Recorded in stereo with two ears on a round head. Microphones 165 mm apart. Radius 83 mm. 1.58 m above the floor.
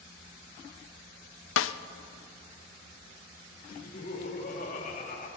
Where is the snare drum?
70° left (ahead or behind), 0.5 m.